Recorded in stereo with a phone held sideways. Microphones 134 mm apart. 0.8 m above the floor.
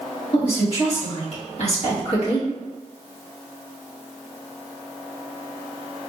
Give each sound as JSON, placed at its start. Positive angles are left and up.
{"t": 0.3, "sound": "a woman speaking", "side_deg": 45, "distance_m": 1.6}